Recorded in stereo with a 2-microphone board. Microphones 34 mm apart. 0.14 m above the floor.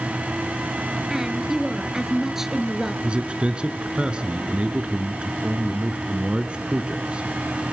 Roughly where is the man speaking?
Right.